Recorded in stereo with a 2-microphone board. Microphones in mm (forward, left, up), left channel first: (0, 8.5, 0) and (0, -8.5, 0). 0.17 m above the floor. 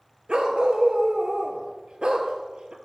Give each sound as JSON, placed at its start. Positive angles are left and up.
{"t": 0.3, "sound": "a dog barking", "side_deg": -75, "distance_m": 0.7}